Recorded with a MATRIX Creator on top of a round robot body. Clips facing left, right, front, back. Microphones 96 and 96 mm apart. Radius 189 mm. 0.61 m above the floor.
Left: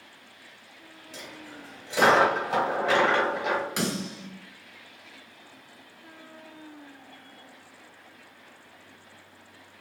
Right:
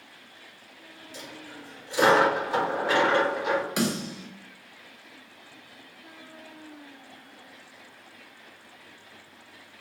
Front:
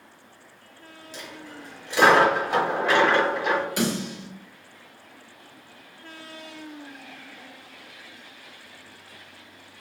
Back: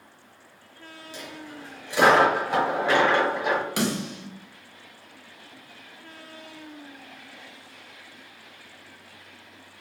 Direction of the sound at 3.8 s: 175° right.